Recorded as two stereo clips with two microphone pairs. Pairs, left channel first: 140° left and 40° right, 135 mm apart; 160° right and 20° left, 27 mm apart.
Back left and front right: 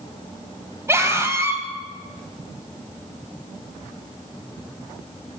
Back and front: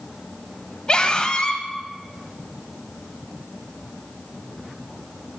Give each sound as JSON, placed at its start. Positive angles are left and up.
{"t": 0.9, "sound": "a scream", "azimuth_deg": -110, "distance_m": 1.7}